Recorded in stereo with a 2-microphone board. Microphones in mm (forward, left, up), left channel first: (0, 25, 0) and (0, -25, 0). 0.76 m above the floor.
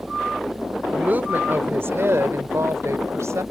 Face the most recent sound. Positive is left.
turn(degrees=-80)